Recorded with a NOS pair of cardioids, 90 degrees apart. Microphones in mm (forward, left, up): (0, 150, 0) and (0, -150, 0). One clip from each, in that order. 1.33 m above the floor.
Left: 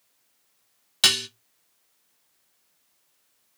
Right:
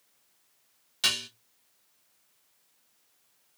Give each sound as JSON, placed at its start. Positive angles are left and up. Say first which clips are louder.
{"t": 1.0, "sound": "dishes clattering", "louder": "left 7 dB", "azimuth_deg": 50, "distance_m": 0.9}